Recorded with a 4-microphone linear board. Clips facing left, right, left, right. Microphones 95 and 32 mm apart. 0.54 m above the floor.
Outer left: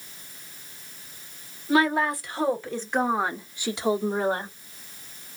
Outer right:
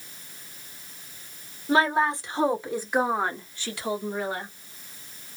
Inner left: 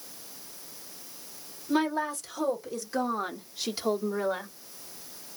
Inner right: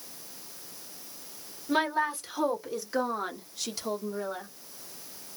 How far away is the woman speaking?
About 1.3 m.